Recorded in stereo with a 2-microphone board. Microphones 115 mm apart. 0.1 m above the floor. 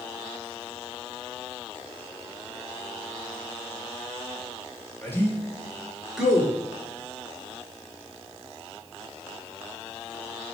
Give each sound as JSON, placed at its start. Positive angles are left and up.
{"t": 5.0, "sound": "a man speaking", "side_deg": 20, "distance_m": 1.2}